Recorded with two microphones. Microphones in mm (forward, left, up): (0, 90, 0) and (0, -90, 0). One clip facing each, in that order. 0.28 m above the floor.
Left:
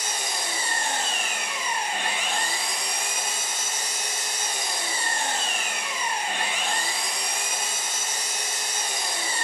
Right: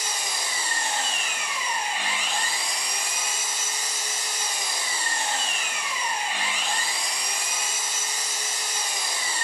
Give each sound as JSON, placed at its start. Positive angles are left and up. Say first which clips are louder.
{"t": 0.0, "sound": "an engine running", "louder": "left 2 dB", "side_deg": 60, "distance_m": 4.0}